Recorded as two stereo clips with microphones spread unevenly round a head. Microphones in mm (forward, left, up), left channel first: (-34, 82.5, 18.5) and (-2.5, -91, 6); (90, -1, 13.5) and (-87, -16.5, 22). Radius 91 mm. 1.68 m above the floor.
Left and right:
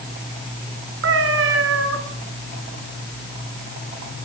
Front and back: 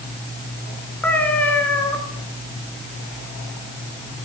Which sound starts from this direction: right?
A cat meowing, at 1.0 s.